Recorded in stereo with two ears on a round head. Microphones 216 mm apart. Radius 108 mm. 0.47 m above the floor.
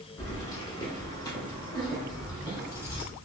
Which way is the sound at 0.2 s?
15° left (ahead or behind).